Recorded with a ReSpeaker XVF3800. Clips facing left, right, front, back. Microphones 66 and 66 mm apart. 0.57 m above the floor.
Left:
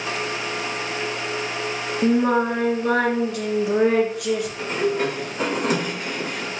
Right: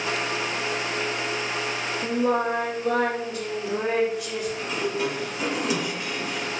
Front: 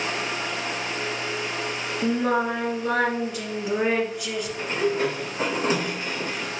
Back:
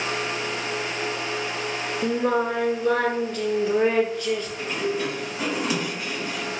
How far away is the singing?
About 1.7 m.